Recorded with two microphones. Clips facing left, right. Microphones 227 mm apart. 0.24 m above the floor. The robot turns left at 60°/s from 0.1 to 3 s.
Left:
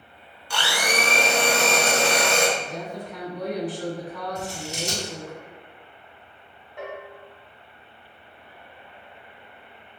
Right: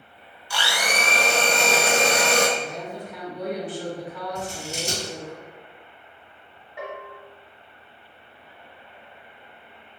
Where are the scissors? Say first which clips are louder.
Even; 35° right (ahead or behind), 1.0 m.